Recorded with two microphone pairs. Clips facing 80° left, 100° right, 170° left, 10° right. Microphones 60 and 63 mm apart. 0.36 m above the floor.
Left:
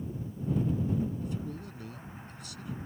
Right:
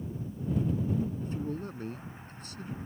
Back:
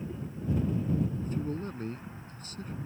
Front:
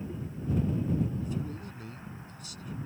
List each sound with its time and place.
1.2 s a man speaking: 150° right